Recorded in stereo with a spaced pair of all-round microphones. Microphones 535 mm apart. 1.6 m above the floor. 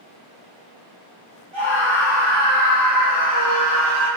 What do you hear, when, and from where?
1.5 s a scream: 60° right (ahead or behind), 2.5 m; by 4.1 s 30° right (ahead or behind), 3 m